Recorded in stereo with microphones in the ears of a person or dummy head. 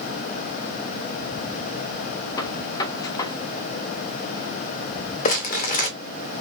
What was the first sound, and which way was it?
A gunshot, 20° left (ahead or behind).